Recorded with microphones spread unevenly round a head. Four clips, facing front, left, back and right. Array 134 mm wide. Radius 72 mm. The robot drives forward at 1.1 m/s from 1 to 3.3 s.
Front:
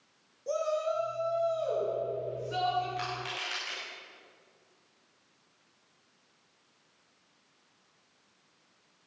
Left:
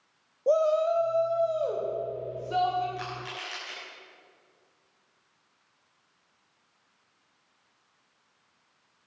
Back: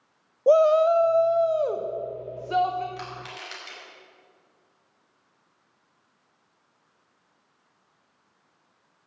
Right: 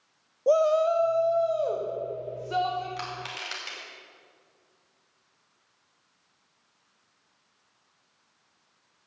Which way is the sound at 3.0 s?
95° right.